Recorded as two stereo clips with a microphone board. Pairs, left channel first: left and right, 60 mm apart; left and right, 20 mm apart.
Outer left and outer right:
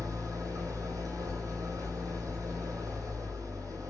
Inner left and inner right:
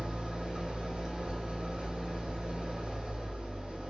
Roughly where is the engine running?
Right.